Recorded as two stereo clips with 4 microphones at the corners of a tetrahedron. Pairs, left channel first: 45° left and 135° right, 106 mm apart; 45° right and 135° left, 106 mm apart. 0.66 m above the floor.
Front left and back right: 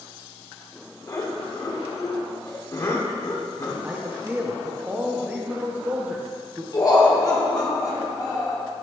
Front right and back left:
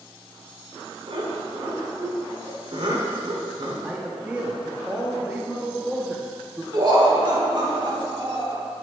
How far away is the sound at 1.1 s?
About 1.4 m.